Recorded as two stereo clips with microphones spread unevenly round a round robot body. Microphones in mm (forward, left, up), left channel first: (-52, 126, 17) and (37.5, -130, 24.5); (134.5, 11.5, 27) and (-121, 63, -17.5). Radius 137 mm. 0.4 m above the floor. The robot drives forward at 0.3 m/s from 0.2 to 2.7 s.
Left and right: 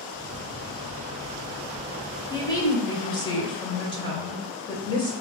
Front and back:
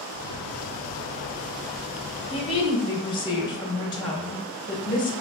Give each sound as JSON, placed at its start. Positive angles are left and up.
{"t": 2.3, "sound": "a woman speaking", "azimuth_deg": 50, "distance_m": 1.1}